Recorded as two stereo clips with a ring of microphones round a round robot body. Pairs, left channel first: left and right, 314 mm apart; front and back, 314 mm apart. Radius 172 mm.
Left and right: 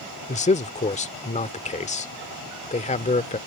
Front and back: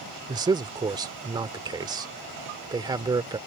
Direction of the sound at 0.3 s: 120° left.